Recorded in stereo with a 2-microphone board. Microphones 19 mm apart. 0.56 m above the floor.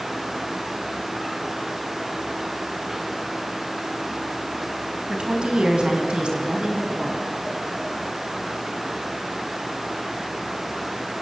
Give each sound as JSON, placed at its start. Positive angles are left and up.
{"t": 5.1, "sound": "a woman speaking", "side_deg": -70, "distance_m": 3.5}